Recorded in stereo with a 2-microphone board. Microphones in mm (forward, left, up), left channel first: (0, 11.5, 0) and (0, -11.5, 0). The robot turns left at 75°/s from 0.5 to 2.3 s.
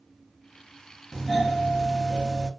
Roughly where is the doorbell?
Ahead left.